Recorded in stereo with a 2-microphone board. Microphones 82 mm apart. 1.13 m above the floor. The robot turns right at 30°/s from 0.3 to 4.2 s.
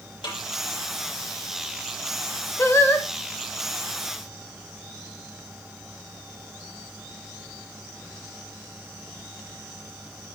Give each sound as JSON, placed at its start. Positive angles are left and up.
{"t": 0.2, "sound": "a snare drum", "side_deg": 75, "distance_m": 7.5}
{"t": 2.6, "sound": "singing", "side_deg": 35, "distance_m": 1.2}